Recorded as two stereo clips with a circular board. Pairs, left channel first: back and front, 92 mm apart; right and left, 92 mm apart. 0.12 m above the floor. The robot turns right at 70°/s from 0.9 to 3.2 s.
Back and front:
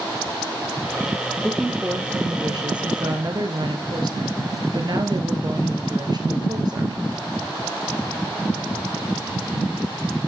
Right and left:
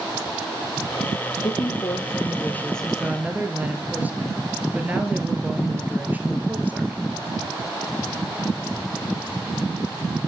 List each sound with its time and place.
1.4 s a woman speaking: 105° right, 2 m; by 7.1 s 20° left, 2 m